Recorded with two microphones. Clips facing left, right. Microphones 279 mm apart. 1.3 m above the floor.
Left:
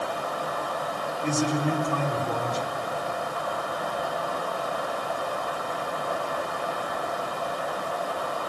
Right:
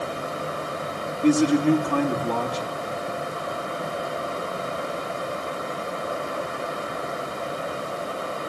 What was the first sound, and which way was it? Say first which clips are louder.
A man speaking: right 9 dB; 75° right (ahead or behind).